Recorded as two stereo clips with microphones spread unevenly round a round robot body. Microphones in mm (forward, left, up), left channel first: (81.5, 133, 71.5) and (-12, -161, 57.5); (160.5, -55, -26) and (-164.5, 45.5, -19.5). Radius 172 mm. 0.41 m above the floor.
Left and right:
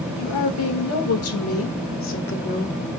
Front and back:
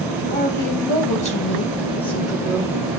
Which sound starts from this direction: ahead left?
A woman speaking, at 0.2 s.